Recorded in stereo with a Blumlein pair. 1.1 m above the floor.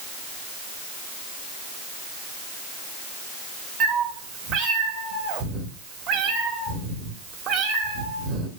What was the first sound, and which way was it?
A cat meowing, 30° right.